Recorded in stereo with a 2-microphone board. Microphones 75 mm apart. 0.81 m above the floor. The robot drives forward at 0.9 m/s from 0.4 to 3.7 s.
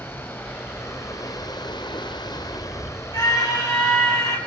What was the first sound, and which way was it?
Running water, 30° left (ahead or behind).